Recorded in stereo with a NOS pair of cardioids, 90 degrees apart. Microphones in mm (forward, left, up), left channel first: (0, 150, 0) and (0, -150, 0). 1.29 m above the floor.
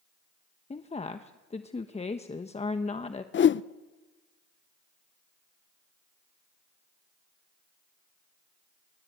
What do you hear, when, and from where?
0.7 s a woman speaking: 20° left, 1.2 m
3.3 s a whoosh: 40° left, 0.7 m